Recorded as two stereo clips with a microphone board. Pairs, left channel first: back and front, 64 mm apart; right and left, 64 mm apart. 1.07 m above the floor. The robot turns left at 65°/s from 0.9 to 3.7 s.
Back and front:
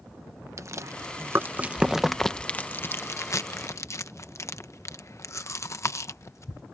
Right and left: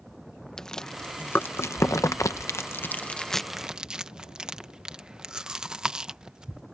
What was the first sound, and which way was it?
Chewing, 10° right.